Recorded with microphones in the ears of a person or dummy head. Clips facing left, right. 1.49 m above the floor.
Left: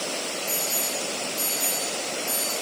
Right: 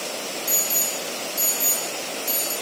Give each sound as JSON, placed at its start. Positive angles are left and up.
{"t": 0.5, "sound": "an alarm", "side_deg": -20, "distance_m": 7.0}